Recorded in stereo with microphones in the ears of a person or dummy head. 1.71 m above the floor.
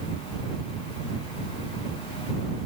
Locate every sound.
Only background noise.